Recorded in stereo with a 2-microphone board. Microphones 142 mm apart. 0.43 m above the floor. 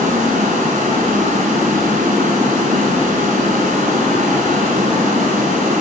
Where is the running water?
80° right, 1.2 m.